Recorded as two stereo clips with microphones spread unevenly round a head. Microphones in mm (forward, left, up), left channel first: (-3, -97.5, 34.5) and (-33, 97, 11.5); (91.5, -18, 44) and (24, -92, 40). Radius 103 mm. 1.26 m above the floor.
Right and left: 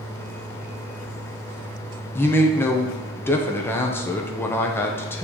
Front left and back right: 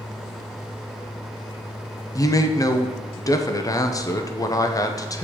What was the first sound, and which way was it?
A man speaking, straight ahead.